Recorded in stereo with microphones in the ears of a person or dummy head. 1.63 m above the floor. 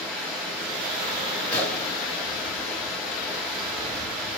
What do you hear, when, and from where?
0.0 s running water: centre (ahead or behind), 1.2 m
1.5 s a gunshot: centre (ahead or behind), 1.7 m